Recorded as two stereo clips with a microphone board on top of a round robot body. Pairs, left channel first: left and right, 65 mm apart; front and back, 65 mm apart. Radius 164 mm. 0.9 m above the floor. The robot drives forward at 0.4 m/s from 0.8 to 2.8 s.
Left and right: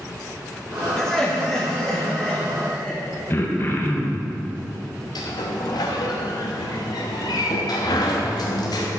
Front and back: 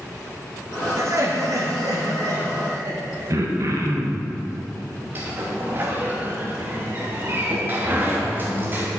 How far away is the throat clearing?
About 1.1 m.